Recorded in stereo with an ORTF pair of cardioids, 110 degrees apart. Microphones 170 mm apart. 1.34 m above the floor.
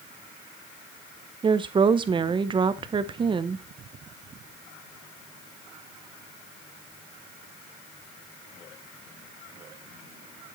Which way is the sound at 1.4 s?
30° right.